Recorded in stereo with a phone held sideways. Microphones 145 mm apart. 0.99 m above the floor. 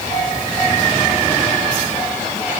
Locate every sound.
Only background noise.